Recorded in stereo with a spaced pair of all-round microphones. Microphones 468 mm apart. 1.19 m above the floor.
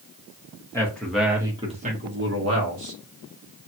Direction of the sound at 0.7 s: 5° left (ahead or behind).